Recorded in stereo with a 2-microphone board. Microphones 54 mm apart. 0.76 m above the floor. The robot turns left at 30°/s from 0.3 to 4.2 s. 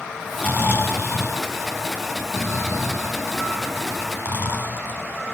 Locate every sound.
0.4 s snoring: 30° left (ahead or behind), 8 m; by 5.0 s 35° left (ahead or behind), 8 m